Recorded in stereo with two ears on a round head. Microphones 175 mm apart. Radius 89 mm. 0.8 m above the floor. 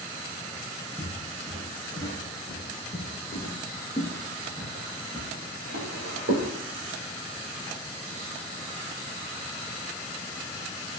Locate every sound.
1.0 s footsteps: 15° right (ahead or behind), 0.8 m; by 3.1 s 35° left (ahead or behind), 1.1 m
3.3 s footsteps: 35° left (ahead or behind), 1.0 m; by 6.5 s 55° right (ahead or behind), 1.6 m